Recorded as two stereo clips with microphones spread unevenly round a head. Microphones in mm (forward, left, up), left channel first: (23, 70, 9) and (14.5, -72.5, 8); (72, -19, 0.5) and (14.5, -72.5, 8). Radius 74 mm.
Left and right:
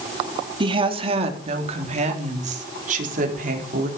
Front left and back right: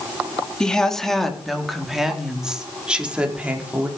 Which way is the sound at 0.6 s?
40° right.